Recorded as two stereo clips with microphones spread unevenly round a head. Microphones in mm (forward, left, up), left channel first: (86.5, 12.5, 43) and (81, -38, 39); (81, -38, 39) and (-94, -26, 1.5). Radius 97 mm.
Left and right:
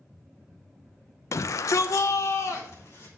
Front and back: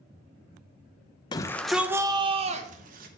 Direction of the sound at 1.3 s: 70° left.